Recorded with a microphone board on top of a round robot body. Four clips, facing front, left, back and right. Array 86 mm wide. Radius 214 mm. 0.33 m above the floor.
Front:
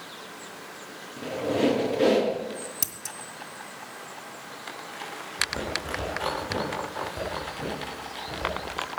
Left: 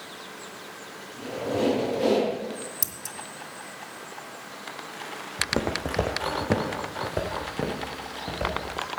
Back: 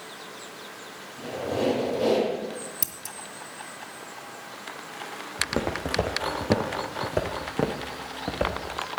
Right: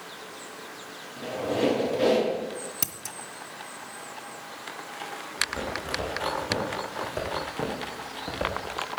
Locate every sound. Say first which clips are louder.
1.2 s a squeak: even, front 2 dB; 25° right, 5.5 m
2.8 s scissors: right 1 dB, even; 85° right, 0.6 m
5.4 s footsteps: left 5 dB, back 4 dB; 125° left, 1.7 m; by 8.6 s 170° right, 2.5 m